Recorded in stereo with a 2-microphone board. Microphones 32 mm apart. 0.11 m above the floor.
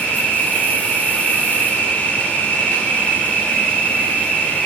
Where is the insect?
55° left (ahead or behind), 4.5 m.